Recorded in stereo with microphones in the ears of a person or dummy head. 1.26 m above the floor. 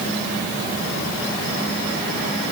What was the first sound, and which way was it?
Only background noise.